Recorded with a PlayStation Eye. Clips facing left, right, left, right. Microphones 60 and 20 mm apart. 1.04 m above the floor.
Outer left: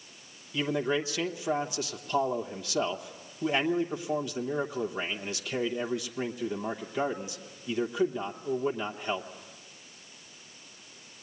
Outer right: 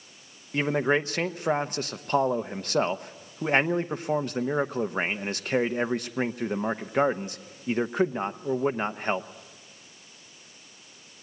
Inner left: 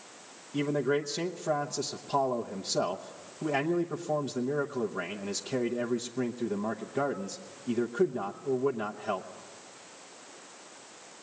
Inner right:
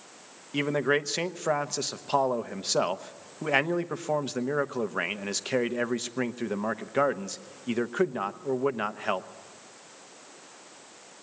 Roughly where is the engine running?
I don't hear an engine running.